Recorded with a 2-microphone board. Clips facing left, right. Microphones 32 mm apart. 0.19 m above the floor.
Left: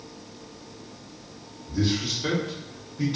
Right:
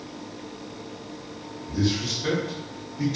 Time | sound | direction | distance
1.7 | a man speaking | 20° left (ahead or behind) | 1.4 m